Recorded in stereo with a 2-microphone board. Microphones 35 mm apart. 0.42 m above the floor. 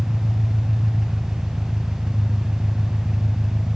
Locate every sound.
0.0 s an engine running: 30° right (ahead or behind), 1.7 m